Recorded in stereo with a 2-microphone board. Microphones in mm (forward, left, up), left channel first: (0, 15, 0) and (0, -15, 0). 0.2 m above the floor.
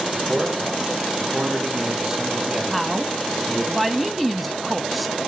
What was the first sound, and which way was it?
A man speaking, 25° right (ahead or behind).